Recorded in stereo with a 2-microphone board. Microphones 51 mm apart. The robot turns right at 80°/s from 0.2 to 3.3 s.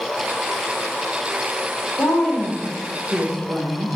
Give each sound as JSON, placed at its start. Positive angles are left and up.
{"t": 2.0, "sound": "a woman speaking", "azimuth_deg": 135, "distance_m": 0.8}